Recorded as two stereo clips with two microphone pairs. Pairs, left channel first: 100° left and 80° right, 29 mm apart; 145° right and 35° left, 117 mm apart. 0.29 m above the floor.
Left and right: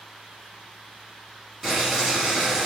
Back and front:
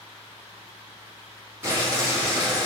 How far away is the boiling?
About 1.2 m.